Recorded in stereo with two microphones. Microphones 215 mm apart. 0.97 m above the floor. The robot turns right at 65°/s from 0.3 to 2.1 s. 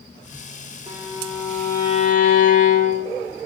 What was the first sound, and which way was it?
A violin, 45° right.